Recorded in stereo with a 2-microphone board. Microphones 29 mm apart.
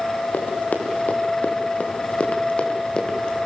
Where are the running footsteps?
75° left (ahead or behind), 5 m; by 3.4 s 25° left (ahead or behind), 5 m.